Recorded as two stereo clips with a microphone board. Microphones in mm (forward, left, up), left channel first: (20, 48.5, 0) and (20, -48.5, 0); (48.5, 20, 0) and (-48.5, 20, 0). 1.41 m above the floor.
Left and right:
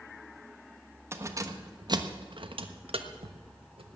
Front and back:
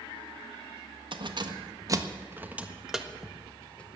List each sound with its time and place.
1.1 s keys jangling: 150° right, 1.3 m; by 3.9 s 75° right, 1.6 m